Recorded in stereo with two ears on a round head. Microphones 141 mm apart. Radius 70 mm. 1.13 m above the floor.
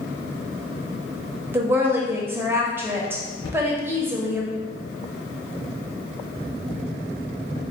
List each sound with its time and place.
1.5 s a woman speaking: 15° right (ahead or behind), 0.8 m
3.4 s a cupboard door: 30° left (ahead or behind), 1.5 m